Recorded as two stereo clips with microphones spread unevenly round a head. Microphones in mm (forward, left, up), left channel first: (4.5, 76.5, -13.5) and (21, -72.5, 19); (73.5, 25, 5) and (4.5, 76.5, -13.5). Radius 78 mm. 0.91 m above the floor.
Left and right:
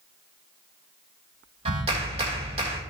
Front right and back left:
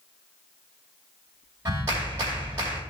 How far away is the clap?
About 2.5 m.